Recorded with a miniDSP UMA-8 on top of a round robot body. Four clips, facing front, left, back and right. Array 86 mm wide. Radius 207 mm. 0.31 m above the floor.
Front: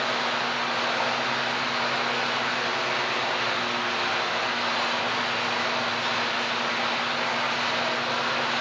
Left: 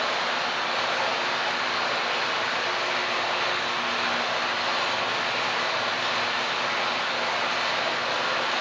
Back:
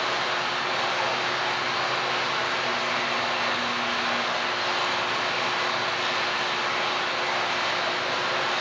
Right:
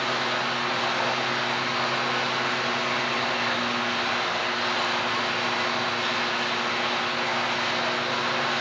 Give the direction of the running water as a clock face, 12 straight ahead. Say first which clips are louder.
Even, even; 8 o'clock.